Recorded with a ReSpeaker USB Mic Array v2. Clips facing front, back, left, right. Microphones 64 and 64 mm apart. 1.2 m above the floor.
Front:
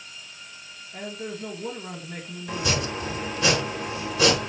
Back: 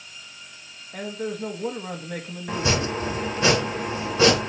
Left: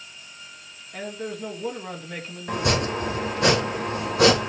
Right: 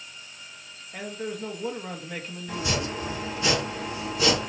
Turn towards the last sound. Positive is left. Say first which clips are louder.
# back 3 dB, left 6 dB
turn(degrees=120)